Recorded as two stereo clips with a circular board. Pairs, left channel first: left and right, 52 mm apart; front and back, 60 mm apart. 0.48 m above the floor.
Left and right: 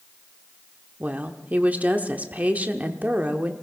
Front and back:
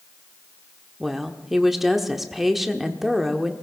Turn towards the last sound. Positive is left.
turn(degrees=-95)